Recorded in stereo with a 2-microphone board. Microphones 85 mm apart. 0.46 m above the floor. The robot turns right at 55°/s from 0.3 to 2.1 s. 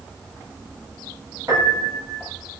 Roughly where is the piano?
Behind right.